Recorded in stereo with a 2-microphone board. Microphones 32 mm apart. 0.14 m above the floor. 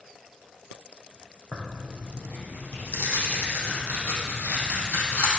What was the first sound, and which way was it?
Tearing paper, 75° left (ahead or behind).